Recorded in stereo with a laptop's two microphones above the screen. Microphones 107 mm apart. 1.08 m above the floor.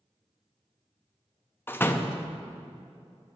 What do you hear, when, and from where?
1.7 s a door slam: 20° left (ahead or behind), 0.7 m